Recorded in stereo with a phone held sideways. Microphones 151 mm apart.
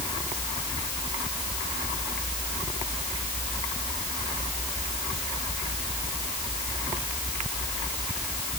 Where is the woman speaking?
I don't hear a woman speaking.